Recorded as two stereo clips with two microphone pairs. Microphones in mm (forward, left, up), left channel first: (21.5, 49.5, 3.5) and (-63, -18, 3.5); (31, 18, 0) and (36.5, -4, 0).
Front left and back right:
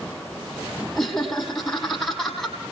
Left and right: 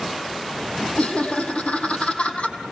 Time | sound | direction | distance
1.0 | laughter | 130° left | 6 m